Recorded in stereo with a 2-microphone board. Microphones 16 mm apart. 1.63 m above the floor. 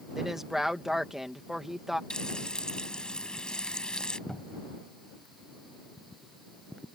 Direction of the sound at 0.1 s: 25° right (ahead or behind).